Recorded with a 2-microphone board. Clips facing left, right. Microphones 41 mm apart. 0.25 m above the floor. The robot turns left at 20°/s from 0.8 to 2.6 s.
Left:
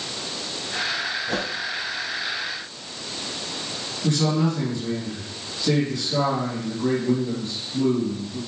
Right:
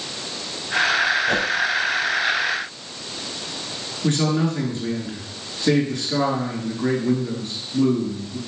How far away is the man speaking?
About 3.5 m.